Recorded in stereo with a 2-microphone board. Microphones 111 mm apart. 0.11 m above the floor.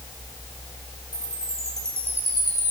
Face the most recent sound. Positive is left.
turn(degrees=-65)  # may be behind; listen again after turning